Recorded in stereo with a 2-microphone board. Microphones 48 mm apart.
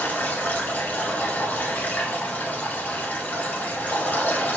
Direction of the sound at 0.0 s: 35° left (ahead or behind).